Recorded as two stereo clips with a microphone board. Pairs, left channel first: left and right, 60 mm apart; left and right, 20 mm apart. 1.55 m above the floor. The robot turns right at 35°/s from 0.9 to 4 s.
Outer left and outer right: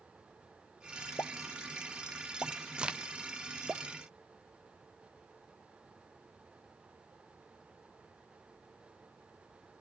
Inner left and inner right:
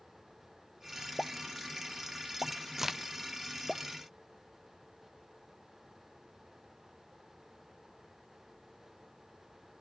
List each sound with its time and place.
1.2 s a pop: 60° left (ahead or behind), 0.5 m; by 3.8 s 30° right (ahead or behind), 0.5 m
2.8 s a crack: 20° right (ahead or behind), 0.7 m